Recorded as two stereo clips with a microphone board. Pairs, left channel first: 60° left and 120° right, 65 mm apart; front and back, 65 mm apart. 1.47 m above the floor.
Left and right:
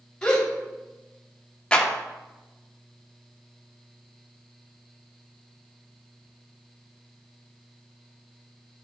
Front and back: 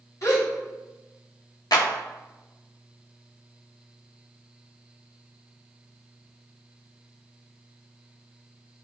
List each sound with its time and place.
0.2 s a gasp: 20° right, 2.5 m
1.7 s a clap: 15° right, 1.1 m